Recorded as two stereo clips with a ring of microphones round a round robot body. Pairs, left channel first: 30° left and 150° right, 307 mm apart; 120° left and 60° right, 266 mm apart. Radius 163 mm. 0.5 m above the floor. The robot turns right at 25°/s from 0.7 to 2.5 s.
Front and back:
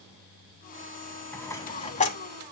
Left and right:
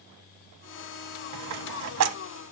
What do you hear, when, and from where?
1.3 s a dropped coin: 55° right, 0.8 m; by 2.2 s 35° right, 0.8 m